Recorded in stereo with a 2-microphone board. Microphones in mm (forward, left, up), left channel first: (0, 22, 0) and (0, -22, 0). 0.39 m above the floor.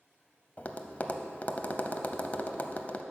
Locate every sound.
0.6 s tapping: 35° left (ahead or behind), 0.6 m